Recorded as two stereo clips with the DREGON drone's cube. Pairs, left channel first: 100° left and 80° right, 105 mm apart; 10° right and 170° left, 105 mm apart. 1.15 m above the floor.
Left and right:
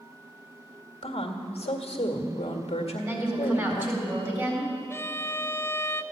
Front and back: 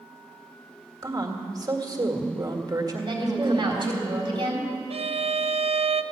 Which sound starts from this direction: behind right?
A woman speaking, at 3.0 s.